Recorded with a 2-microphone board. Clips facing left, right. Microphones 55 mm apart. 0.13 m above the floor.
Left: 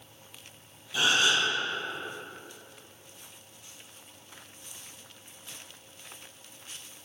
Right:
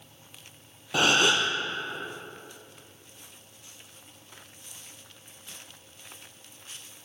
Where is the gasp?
70° right (ahead or behind), 0.9 m.